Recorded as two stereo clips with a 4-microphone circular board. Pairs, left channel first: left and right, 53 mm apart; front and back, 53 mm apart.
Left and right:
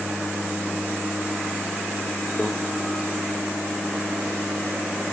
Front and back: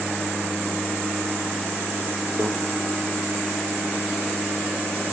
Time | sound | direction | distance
2.4 | a microwave | 155° left | 0.8 m